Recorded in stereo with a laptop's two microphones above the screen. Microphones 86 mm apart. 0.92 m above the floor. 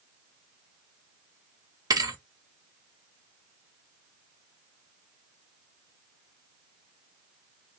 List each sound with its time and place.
1.9 s a thud: 45° right (ahead or behind), 0.9 m